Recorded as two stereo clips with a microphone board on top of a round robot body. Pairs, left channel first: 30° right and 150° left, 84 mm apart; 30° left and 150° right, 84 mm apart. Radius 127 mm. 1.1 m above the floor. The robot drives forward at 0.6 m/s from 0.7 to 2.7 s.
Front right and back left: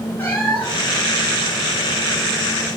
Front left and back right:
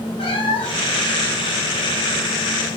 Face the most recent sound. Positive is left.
turn(degrees=130)